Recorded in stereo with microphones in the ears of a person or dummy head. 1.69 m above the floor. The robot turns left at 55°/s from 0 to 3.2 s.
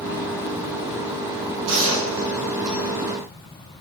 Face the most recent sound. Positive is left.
turn(degrees=-165)